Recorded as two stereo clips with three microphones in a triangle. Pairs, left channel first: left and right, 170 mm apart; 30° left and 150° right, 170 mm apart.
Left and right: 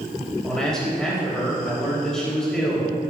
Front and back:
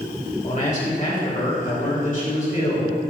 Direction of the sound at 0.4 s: 5° left.